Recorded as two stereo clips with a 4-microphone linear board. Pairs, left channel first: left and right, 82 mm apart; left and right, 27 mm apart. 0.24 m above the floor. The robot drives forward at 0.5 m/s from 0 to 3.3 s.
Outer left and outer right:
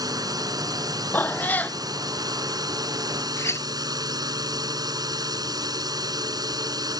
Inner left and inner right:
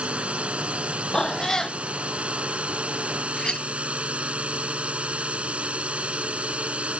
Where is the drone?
50° right (ahead or behind).